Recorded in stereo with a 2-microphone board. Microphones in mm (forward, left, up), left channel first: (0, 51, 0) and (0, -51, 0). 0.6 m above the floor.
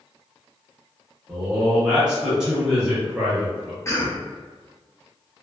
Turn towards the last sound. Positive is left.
turn(degrees=30)  # may be behind; listen again after turning